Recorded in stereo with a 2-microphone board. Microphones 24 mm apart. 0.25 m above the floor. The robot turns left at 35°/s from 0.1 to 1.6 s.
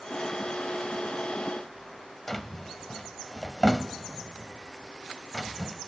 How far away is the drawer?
About 0.7 m.